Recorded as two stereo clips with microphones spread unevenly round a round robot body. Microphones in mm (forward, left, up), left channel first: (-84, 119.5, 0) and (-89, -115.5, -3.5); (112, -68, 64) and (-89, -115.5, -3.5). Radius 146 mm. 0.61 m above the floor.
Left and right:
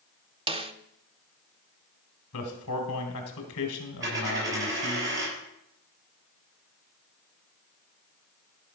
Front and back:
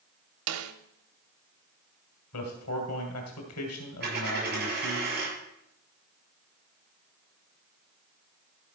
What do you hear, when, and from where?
0.5 s a snare drum: 160° right, 0.8 m
2.3 s a man speaking: 45° left, 2.5 m
4.0 s a dropped coin: 130° right, 6.5 m